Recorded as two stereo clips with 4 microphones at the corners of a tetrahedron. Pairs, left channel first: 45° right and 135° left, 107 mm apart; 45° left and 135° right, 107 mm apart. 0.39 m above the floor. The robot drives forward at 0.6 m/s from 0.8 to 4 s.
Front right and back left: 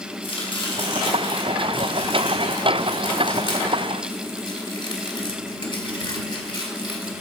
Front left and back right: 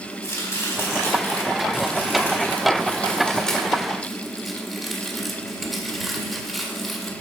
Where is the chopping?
15° right, 3 m; by 7.1 s 45° right, 1.7 m.